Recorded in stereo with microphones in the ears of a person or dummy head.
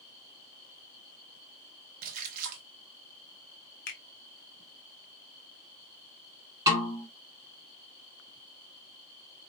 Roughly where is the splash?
Right.